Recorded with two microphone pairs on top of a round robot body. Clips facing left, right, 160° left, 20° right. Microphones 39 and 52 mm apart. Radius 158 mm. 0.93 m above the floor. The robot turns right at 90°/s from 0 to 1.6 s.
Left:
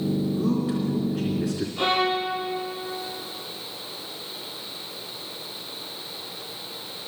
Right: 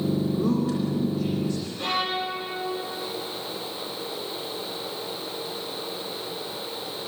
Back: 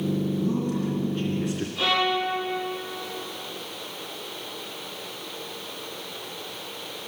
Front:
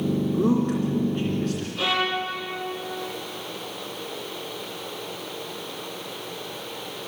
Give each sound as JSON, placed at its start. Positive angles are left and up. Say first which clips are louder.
{"t": 0.3, "sound": "a man speaking", "louder": "even, front 4 dB", "azimuth_deg": -25, "distance_m": 3.0}
{"t": 1.8, "sound": "a violin", "louder": "left 6 dB, back 2 dB", "azimuth_deg": 55, "distance_m": 9.0}